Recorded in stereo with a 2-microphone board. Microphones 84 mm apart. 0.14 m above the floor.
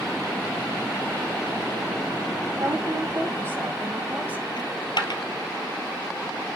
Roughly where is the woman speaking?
Right.